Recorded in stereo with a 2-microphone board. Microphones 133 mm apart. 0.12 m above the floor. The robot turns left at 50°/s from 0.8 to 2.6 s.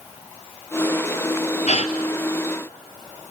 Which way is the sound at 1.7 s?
60° left (ahead or behind).